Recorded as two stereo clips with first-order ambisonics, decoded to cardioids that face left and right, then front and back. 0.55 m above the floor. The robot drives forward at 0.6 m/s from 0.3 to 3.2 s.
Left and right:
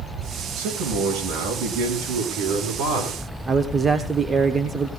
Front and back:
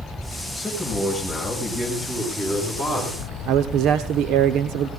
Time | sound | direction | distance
0.6 | a man speaking | 90° right | 8 m
3.5 | a man speaking | 160° right | 1.0 m